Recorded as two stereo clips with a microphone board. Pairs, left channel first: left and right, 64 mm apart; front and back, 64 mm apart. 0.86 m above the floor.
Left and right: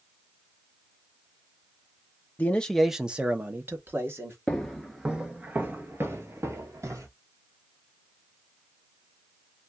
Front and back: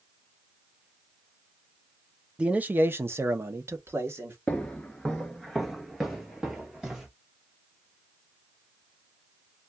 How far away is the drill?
I don't hear a drill.